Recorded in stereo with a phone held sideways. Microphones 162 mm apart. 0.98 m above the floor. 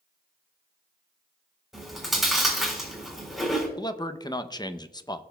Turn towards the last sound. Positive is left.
turn(degrees=25)  # may be behind; listen again after turning